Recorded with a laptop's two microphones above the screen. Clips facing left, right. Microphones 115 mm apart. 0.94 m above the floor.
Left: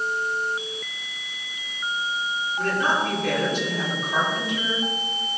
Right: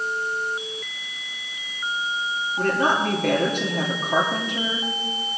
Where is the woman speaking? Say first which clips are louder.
Right 3 dB; 55° right (ahead or behind), 1.6 m.